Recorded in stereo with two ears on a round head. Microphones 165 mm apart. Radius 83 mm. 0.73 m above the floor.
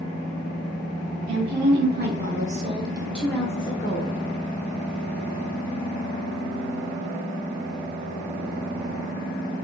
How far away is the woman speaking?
About 2 m.